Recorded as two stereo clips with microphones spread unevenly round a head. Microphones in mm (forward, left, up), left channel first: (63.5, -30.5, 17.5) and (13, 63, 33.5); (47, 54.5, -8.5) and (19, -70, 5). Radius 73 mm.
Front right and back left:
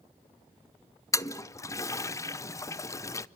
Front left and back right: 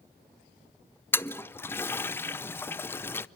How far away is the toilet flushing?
About 0.7 m.